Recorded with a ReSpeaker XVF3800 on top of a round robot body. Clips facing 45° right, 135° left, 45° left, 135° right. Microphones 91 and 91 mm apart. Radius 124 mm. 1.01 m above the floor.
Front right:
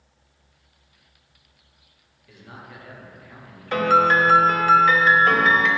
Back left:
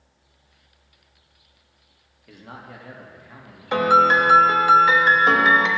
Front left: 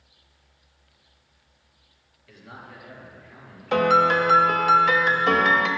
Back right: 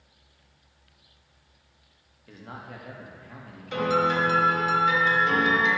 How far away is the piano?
About 0.9 m.